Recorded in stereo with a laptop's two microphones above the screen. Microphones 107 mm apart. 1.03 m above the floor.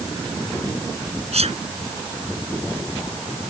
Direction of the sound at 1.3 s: 75° right (ahead or behind).